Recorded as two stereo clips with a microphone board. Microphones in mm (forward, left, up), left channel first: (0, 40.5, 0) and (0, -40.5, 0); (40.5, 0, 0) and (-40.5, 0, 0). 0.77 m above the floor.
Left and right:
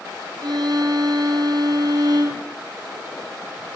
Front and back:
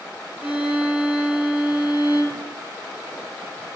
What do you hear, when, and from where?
0.4 s a violin: 110° right, 1.7 m